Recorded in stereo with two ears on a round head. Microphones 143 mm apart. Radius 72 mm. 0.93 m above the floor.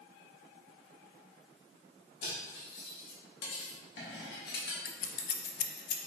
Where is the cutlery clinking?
70° left (ahead or behind), 1.4 m.